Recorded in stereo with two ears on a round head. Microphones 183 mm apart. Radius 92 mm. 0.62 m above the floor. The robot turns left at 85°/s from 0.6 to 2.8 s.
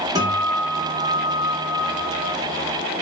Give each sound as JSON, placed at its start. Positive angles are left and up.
{"t": 0.1, "sound": "a guitar", "azimuth_deg": -160, "distance_m": 1.0}